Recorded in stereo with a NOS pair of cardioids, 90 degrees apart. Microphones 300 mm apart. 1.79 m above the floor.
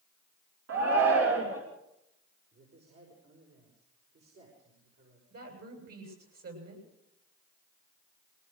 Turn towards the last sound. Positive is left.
turn(degrees=-50)